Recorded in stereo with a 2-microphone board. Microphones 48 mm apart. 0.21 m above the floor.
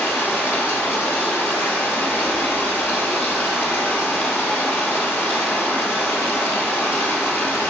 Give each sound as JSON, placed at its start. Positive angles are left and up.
{"t": 0.0, "sound": "running water", "side_deg": 50, "distance_m": 2.0}